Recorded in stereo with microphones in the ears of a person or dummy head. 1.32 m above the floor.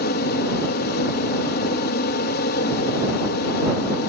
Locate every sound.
0.0 s an aircraft: 55° left (ahead or behind)